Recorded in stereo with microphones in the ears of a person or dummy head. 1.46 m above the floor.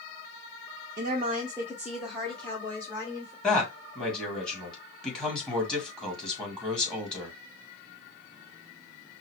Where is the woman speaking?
55° right (ahead or behind), 0.7 m; by 3.3 s 15° left (ahead or behind), 2 m.